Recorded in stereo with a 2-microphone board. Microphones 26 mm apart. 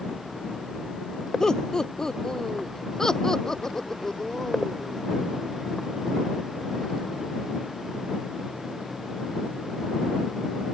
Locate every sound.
1.4 s laughter: 25° left (ahead or behind); by 5.0 s 20° left (ahead or behind)